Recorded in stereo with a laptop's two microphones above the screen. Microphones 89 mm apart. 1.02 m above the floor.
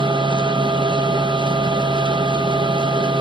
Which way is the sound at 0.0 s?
65° right (ahead or behind).